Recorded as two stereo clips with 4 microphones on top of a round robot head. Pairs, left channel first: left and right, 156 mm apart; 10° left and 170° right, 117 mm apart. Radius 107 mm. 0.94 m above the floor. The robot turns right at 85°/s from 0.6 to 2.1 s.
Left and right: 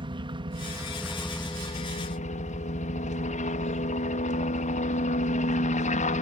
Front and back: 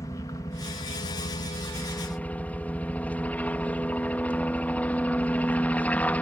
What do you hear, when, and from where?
0.0 s a helicopter: 45° right; by 6.2 s 85° left